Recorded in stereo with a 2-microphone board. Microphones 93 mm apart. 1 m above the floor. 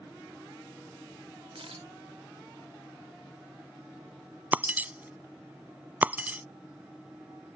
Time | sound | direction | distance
1.6 | a camera shutter | 85° right | ?
4.5 | breaking glass | 20° right (ahead or behind) | ?